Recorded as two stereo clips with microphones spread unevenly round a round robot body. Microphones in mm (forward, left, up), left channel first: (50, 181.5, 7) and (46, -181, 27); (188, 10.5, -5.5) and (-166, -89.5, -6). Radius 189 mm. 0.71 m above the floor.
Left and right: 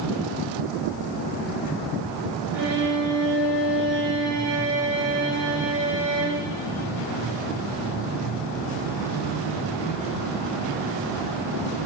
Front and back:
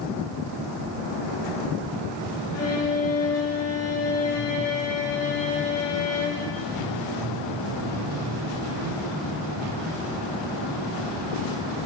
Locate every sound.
2.5 s a violin: 35° right, 3 m